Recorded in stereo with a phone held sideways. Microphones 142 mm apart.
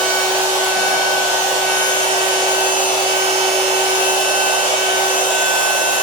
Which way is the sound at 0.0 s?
70° left (ahead or behind).